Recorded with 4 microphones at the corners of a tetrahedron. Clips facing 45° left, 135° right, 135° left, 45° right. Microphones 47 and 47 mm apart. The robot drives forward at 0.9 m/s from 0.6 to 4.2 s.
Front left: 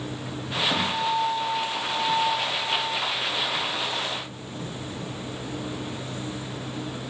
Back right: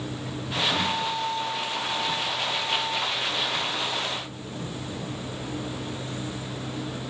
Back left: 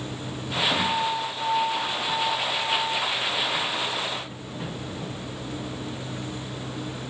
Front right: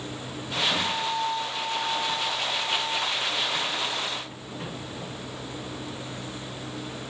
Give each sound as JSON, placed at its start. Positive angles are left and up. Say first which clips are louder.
{"t": 0.7, "sound": "a guitar", "louder": "front left 2 dB, back left 3 dB", "azimuth_deg": 50, "distance_m": 5.5}